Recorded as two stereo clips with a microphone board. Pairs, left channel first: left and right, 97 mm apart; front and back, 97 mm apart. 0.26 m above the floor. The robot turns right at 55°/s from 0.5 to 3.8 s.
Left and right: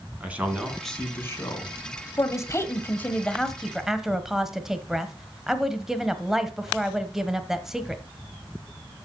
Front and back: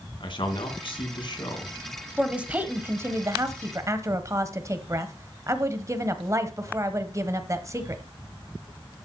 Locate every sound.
0.2 s a man speaking: 15° right, 2.5 m; by 1.7 s 55° left, 2.5 m
2.2 s a woman speaking: 100° left, 1.1 m; by 8.0 s 170° right, 1.1 m